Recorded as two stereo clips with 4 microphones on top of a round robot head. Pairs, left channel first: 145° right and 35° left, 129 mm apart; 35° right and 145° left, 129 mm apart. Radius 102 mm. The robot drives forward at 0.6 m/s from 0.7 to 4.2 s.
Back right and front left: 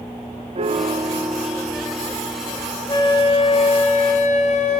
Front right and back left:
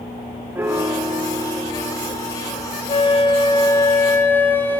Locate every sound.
0.6 s a piano: 70° left, 1.0 m; by 2.7 s 135° left, 1.3 m
2.9 s a flute: 85° right, 1.6 m; by 4.8 s 110° right, 1.7 m